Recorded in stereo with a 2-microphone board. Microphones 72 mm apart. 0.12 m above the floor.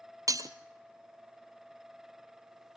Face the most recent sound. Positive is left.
turn(degrees=-55)  # may be behind; listen again after turning